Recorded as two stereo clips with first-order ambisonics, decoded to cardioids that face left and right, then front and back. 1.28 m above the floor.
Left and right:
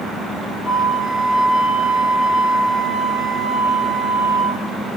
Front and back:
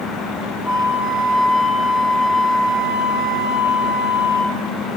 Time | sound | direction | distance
0.7 | a flute | 65° left | 0.9 m